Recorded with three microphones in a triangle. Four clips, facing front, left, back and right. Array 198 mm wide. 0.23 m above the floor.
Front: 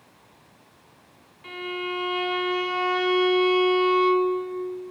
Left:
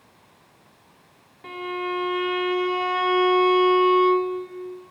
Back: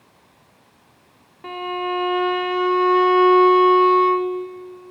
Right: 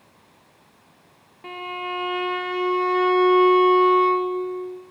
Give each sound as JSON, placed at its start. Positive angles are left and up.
{"t": 1.4, "sound": "a violin", "azimuth_deg": -175, "distance_m": 1.4}